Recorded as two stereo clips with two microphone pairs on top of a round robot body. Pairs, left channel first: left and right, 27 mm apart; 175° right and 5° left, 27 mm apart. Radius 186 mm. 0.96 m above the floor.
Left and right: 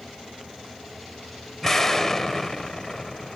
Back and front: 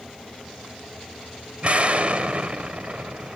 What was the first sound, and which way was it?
An explosion, 10° left.